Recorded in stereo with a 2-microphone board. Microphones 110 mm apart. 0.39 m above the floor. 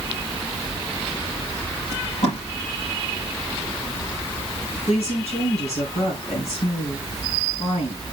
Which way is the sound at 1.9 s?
85° left.